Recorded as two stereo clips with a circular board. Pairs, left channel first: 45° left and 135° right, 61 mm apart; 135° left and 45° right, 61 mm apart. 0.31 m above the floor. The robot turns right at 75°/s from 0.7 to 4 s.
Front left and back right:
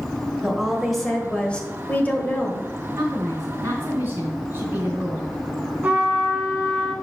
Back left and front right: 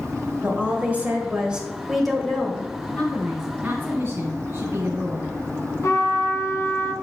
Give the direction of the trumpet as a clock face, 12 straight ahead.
7 o'clock.